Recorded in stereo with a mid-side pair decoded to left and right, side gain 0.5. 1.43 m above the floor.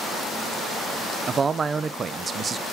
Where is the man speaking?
40° right, 0.9 m.